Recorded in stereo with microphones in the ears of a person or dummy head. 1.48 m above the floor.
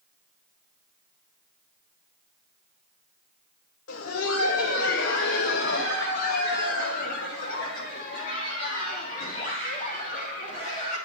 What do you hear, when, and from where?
3.9 s laughter: 85° left, 1.3 m; by 11.0 s 40° left (ahead or behind), 4.5 m